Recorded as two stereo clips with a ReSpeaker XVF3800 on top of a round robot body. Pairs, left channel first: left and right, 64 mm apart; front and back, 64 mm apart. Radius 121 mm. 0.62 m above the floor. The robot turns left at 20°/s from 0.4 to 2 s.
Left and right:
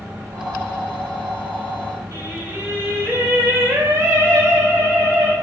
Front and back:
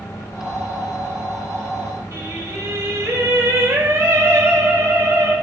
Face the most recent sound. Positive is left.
turn(degrees=-135)